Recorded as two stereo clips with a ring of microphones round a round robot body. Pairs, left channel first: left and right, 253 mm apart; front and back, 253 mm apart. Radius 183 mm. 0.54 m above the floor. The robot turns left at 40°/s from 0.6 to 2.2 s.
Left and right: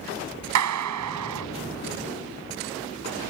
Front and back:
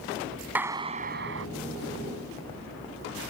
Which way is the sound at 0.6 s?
95° right.